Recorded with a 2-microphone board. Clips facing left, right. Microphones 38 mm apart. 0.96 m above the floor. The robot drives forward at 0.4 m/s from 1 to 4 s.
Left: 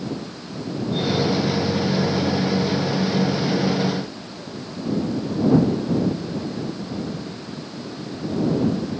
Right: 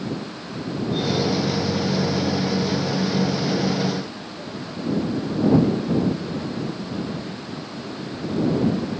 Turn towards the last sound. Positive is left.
No sound to turn to.